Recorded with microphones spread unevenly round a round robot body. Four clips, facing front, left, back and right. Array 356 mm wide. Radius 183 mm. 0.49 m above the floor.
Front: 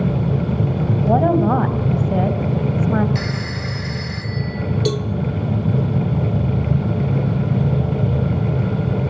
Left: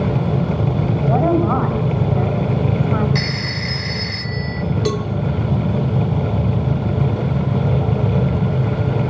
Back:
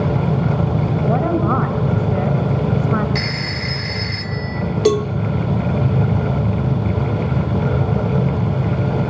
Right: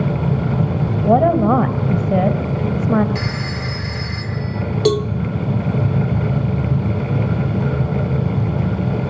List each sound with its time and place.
1.1 s a woman speaking: 85° right, 2.5 m
3.1 s a phone ringing: 130° left, 4.5 m
4.8 s a cowbell: 140° right, 0.8 m